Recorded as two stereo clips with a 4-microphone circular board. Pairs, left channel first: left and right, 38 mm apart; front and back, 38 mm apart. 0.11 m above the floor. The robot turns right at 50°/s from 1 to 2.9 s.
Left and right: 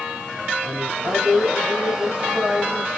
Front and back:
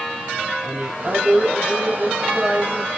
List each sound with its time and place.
0.6 s a woman speaking: 135° right, 2.5 m; by 2.9 s 40° right, 2.5 m